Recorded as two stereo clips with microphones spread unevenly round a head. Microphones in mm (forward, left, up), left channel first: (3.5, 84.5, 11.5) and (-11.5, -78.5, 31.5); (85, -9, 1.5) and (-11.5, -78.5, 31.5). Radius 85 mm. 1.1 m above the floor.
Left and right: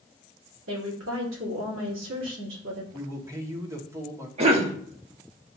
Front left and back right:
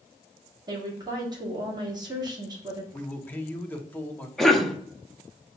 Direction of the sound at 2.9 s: 20° right.